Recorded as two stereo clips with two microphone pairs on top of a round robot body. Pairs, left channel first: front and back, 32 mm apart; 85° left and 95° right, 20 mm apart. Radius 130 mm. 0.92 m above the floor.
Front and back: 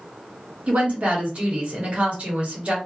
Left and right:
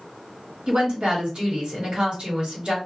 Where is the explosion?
No explosion in this recording.